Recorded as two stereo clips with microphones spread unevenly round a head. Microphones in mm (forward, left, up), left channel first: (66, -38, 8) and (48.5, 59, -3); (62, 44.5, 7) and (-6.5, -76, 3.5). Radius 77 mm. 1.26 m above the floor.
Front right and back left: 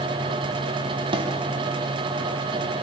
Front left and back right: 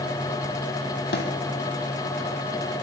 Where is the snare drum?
65° left, 5.5 m.